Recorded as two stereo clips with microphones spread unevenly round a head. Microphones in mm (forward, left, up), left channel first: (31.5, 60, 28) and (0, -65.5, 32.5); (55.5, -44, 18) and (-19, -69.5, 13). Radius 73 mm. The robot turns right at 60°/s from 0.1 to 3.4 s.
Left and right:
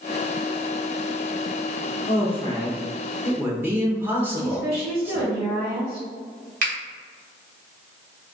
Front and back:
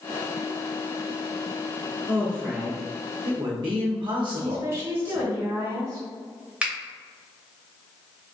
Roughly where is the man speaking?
Left.